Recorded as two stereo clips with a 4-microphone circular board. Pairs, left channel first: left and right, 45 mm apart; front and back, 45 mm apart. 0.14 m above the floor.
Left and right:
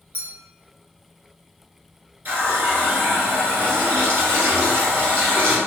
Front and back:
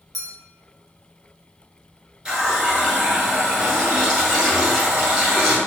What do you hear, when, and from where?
0.1 s a clink: 85° right, 1.1 m
2.2 s a running tap: 115° right, 1.5 m